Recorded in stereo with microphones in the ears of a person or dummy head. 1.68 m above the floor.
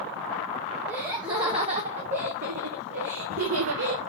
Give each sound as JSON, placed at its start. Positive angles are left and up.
{"t": 0.9, "sound": "laughter", "side_deg": -15, "distance_m": 1.4}